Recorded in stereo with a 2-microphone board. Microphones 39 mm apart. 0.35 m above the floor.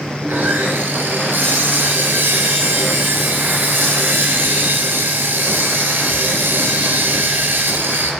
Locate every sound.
0.2 s sawing: 80° right, 6 m